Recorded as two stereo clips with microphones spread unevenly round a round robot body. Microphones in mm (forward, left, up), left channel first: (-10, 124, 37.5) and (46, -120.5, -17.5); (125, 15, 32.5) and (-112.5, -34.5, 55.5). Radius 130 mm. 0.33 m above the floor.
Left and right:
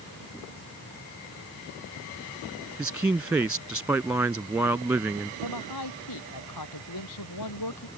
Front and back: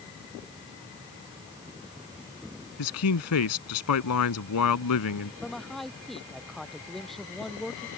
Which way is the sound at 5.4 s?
100° left.